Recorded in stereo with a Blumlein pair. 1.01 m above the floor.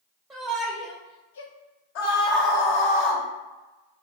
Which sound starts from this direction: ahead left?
A scream, at 1.9 s.